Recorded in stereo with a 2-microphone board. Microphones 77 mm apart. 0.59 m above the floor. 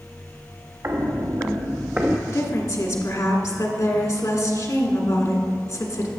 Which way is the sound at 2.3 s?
50° left (ahead or behind).